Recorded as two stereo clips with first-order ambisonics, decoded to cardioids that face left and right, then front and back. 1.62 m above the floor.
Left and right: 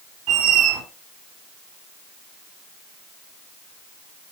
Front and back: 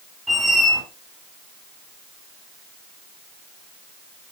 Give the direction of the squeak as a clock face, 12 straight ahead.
3 o'clock.